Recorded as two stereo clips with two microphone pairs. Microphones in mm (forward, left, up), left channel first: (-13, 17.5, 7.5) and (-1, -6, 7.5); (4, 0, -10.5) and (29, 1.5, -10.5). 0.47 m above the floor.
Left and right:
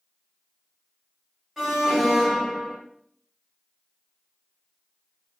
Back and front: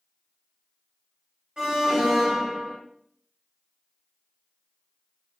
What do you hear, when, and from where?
1.6 s an alarm: 10° left, 1.6 m